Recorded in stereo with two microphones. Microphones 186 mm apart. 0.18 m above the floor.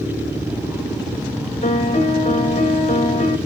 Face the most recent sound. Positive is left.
turn(degrees=35)  # may be behind; listen again after turning